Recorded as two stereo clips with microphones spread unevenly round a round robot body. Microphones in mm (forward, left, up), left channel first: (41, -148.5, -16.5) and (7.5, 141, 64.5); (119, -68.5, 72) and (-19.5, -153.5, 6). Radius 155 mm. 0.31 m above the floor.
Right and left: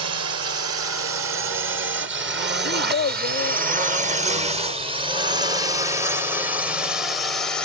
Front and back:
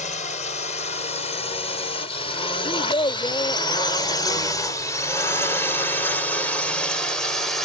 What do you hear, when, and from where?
0.0 s a drone: 85° left; by 7.7 s 120° right
2.6 s a child speaking: 25° right